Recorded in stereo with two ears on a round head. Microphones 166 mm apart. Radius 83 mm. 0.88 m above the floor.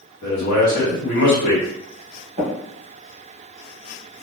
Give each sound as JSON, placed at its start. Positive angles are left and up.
{"t": 0.2, "sound": "a man speaking", "side_deg": 45, "distance_m": 1.5}
{"t": 2.4, "sound": "tapping", "side_deg": -30, "distance_m": 1.3}